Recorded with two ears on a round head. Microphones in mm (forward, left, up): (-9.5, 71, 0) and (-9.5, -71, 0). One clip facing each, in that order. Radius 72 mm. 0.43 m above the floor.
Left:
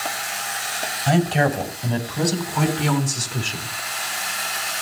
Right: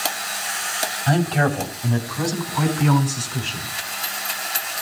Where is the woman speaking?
25° left (ahead or behind), 3 m; by 3.7 s 55° left (ahead or behind), 5.5 m.